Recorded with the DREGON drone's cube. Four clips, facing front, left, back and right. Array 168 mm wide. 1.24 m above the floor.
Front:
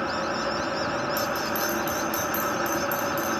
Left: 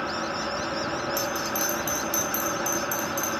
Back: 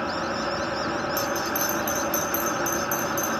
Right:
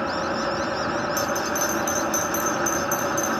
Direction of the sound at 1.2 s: Straight behind.